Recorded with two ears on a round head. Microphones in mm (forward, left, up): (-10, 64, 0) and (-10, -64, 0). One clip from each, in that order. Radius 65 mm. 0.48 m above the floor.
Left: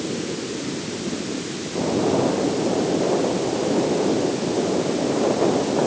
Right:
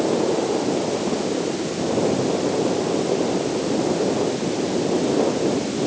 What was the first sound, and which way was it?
Only background noise.